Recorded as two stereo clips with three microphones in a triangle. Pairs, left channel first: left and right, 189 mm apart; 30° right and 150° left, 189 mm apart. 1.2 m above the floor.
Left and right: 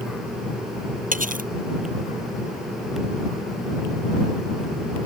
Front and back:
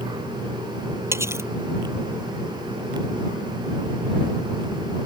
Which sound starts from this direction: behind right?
Cutlery clinking, at 1.1 s.